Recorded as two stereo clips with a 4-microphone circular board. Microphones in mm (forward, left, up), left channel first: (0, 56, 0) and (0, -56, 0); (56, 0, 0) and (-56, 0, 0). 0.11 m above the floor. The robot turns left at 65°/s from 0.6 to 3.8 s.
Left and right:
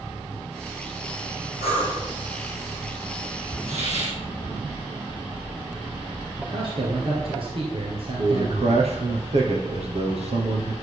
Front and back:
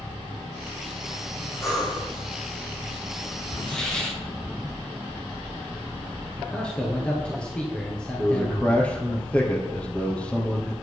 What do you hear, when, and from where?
1.6 s breathing: 65° left, 3.5 m; by 2.1 s 35° left, 3.5 m
3.7 s a hiss: 75° right, 3 m; by 4.2 s 85° right, 3 m
6.4 s a man speaking: 80° right, 2.5 m
8.2 s a man speaking: 80° right, 2.5 m